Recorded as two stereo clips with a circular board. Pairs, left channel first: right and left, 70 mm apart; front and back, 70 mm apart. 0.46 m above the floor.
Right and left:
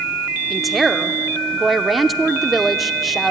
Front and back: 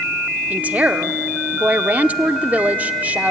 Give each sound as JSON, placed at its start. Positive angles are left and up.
{"t": 0.5, "sound": "a woman speaking", "azimuth_deg": 180, "distance_m": 0.7}